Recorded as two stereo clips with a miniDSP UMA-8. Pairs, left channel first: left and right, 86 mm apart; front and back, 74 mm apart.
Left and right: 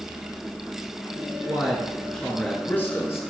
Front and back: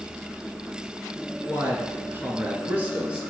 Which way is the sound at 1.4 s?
155° right.